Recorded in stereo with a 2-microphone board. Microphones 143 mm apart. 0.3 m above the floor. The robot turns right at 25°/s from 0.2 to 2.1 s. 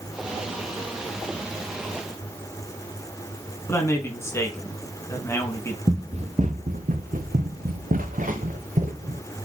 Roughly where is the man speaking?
Centre.